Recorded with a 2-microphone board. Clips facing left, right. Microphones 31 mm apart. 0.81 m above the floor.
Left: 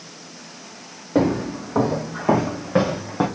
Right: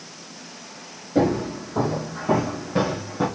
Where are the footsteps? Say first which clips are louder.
Left 1 dB; 55° left (ahead or behind), 3.5 m; by 3.3 s 45° left (ahead or behind), 2 m.